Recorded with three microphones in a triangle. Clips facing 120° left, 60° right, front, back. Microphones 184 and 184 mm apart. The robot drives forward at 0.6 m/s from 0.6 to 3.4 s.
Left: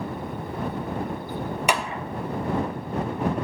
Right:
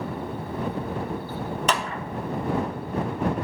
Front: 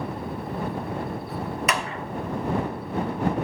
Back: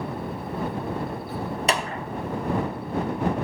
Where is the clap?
170° right, 0.6 m; by 2.0 s 175° right, 0.8 m.